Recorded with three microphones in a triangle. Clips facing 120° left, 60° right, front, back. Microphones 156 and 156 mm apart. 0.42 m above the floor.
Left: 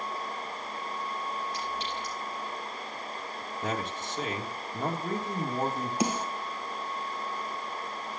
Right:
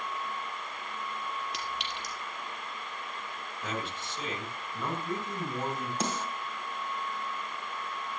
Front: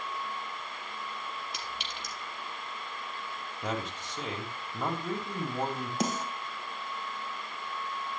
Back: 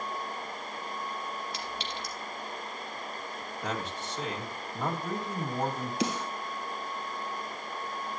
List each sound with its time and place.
1.5 s a clink: 70° right, 6 m
3.6 s a man speaking: 80° left, 2 m
6.0 s a snare drum: 40° left, 2.5 m